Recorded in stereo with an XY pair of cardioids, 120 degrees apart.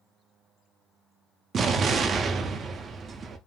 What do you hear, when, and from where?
1.5 s an explosion: 40° right, 0.6 m